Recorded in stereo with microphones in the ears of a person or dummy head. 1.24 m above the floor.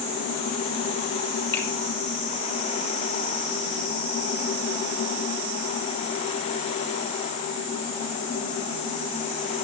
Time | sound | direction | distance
1.5 | a finger snap | 20° left (ahead or behind) | 1.8 m